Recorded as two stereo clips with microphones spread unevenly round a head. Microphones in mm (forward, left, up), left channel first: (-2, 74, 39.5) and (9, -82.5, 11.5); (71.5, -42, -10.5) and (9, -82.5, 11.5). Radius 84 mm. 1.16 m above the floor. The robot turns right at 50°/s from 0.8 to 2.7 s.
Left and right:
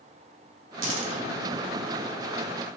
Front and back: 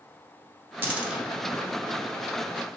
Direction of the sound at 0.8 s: 90° right.